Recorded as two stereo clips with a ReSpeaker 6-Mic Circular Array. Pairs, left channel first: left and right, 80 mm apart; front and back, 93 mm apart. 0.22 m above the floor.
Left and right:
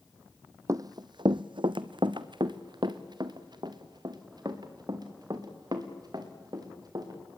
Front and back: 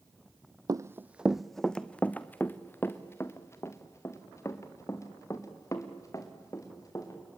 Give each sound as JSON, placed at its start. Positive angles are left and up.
{"t": 0.7, "sound": "running footsteps", "azimuth_deg": -135, "distance_m": 0.6}